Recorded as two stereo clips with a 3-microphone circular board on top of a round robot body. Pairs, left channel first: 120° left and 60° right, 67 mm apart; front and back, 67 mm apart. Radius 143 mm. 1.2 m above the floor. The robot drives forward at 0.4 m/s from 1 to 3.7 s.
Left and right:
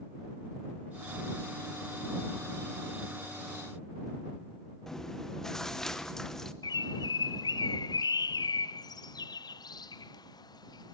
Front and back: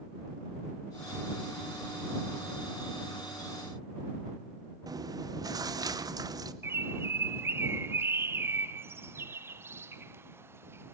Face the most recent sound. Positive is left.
turn(degrees=125)